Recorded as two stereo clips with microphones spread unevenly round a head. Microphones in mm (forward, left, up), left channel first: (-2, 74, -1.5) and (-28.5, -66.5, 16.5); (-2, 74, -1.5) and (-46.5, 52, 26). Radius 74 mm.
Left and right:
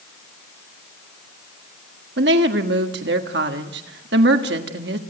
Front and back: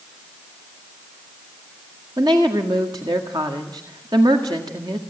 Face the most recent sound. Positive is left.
turn(degrees=-100)